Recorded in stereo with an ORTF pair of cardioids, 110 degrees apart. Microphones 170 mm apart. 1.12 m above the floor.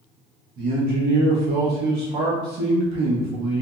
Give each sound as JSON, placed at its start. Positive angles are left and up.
{"t": 0.6, "sound": "a man speaking", "azimuth_deg": -70, "distance_m": 1.1}